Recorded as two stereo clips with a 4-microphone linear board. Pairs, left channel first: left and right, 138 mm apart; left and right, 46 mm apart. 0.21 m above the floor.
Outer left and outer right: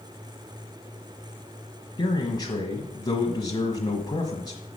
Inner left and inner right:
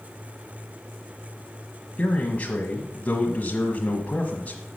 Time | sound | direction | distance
2.0 | a man speaking | 30° left (ahead or behind) | 1.2 m